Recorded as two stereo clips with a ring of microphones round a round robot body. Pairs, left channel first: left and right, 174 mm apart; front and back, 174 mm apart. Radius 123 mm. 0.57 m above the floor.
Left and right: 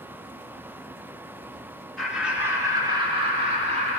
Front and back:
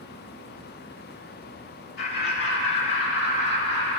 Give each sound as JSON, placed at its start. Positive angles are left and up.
{"t": 2.0, "sound": "laughter", "azimuth_deg": 0, "distance_m": 1.1}